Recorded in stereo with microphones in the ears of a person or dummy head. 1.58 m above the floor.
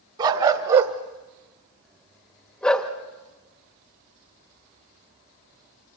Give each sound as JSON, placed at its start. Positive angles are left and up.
{"t": 0.2, "sound": "a dog barking", "side_deg": -25, "distance_m": 1.5}